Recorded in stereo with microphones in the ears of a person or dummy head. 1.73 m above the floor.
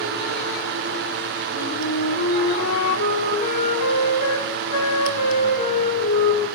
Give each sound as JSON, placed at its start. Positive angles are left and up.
{"t": 1.5, "sound": "a flute", "side_deg": 65, "distance_m": 5.5}